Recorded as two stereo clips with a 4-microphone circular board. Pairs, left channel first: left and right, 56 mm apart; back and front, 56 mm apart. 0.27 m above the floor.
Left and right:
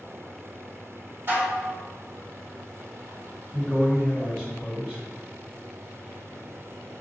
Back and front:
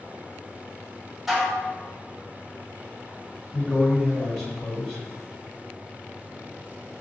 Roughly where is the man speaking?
Right.